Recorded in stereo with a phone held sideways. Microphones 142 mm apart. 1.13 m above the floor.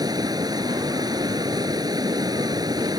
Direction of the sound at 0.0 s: 30° right (ahead or behind).